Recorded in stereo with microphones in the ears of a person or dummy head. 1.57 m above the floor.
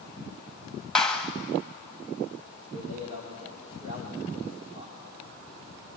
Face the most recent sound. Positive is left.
turn(degrees=-40)  # may be behind; listen again after turning